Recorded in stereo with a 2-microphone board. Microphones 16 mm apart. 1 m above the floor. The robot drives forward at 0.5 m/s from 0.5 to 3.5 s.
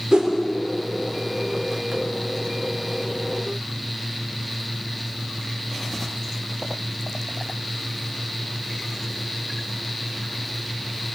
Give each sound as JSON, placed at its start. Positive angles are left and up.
{"t": 0.1, "sound": "a whoosh", "side_deg": -45, "distance_m": 3.0}